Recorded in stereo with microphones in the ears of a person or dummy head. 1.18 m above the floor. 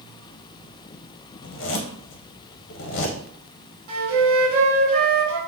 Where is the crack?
I don't hear a crack.